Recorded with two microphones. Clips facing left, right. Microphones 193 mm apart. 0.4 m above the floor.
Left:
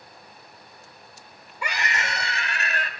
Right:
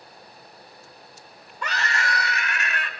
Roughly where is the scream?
Centre.